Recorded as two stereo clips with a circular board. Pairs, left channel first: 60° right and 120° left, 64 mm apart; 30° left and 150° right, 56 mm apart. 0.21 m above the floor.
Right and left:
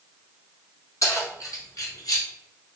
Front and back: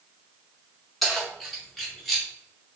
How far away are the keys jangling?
About 1.7 m.